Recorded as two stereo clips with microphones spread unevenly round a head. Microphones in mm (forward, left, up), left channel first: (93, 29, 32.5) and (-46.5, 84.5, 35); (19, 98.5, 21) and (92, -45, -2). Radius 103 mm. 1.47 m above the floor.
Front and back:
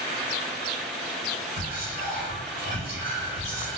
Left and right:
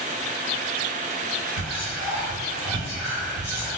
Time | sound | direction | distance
1.6 | whispering | 135° left | 1.3 m